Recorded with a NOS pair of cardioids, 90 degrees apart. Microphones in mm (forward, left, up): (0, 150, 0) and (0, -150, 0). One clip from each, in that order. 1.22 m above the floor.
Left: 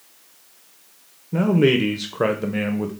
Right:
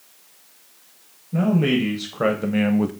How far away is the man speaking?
About 0.9 m.